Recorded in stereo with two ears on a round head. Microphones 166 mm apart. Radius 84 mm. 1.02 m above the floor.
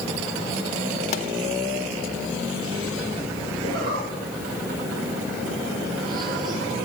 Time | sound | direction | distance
1.1 | a pop | 35° left (ahead or behind) | 2 m
3.6 | a zipper | 50° right (ahead or behind) | 10 m